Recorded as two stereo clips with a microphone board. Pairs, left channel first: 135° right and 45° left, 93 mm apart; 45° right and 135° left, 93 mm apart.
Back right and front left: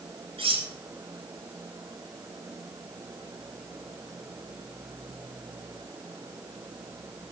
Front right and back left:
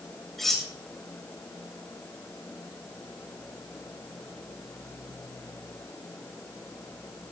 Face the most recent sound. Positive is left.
turn(degrees=45)